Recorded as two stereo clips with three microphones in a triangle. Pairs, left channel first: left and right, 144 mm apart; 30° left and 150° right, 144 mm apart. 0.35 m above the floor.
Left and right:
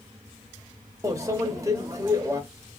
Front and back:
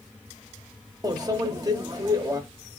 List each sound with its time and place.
1.0 s a microwave: 130° right, 0.6 m